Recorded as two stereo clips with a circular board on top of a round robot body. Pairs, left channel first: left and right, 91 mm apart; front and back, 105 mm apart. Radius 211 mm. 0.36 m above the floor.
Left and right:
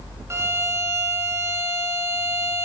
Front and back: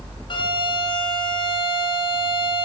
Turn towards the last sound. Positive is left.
turn(degrees=-35)